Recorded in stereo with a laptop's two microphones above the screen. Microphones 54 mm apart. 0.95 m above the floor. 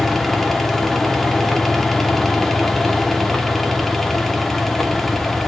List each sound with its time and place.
0.0 s a fan: 5° left (ahead or behind), 1.6 m